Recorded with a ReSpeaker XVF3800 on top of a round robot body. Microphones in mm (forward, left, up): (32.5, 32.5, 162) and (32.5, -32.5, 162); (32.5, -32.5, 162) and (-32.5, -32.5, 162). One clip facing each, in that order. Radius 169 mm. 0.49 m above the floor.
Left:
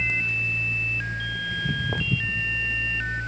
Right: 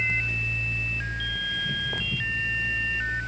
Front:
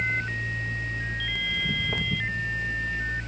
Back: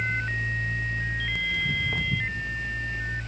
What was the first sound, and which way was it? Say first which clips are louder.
Footsteps: left 2 dB, even; 75° left.